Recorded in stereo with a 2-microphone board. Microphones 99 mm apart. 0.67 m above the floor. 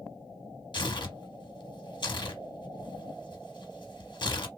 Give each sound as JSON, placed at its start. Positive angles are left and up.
{"t": 0.7, "sound": "tearing paper", "side_deg": 50, "distance_m": 0.9}